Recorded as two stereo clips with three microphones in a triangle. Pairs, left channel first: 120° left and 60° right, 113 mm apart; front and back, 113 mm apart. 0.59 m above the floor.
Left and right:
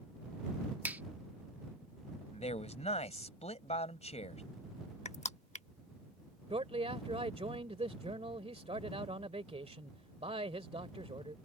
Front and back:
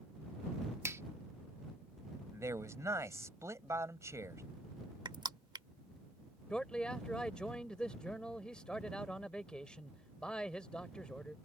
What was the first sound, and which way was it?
A finger snap, 130° right.